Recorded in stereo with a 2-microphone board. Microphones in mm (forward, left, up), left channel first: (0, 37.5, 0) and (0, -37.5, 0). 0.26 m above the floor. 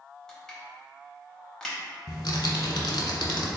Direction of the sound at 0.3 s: 10° left (ahead or behind).